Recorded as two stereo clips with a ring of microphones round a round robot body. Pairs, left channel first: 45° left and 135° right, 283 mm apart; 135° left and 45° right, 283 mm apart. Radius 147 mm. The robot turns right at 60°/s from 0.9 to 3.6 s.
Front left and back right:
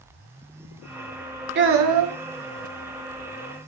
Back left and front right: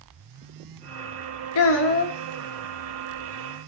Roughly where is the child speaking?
Behind.